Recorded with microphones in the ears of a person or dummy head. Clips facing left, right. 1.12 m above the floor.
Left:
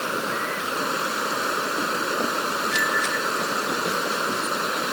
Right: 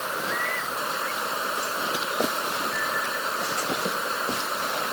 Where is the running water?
45° left (ahead or behind).